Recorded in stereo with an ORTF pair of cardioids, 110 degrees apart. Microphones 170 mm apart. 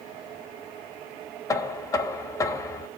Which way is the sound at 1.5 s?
20° left.